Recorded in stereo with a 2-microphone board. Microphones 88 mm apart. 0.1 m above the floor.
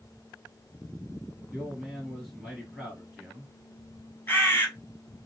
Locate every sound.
1.5 s a man speaking: centre (ahead or behind), 2 m
4.3 s a bird: 25° left (ahead or behind), 1.5 m